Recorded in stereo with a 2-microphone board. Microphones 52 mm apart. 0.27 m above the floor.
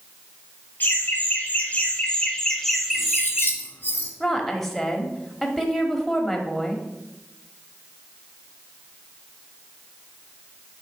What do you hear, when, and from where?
0.8 s laughter: 40° left (ahead or behind), 1.9 m; by 3.5 s 20° right (ahead or behind), 1.0 m
2.9 s cutlery clinking: 40° left (ahead or behind), 1.2 m
4.2 s a woman speaking: 5° left (ahead or behind), 1.1 m